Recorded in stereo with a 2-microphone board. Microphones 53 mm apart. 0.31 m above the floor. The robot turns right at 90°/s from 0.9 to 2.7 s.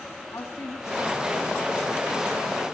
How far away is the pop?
I don't hear a pop.